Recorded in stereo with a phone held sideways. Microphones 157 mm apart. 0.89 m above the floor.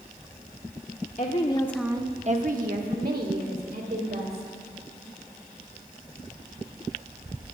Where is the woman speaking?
50° left (ahead or behind), 1.0 m; by 4.5 s 80° right, 4 m.